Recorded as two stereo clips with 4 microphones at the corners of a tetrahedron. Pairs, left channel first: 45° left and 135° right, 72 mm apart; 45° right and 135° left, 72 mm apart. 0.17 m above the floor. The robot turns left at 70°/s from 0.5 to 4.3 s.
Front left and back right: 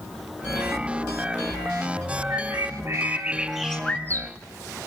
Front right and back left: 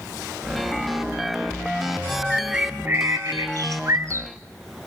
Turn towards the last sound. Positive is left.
turn(degrees=85)